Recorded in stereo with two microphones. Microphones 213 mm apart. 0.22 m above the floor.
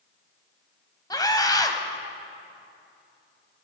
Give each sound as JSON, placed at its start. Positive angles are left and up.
{"t": 1.1, "sound": "a scream", "side_deg": 20, "distance_m": 1.0}